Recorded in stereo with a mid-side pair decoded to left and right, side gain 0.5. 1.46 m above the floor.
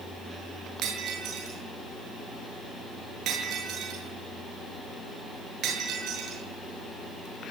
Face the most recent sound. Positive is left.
turn(degrees=-70)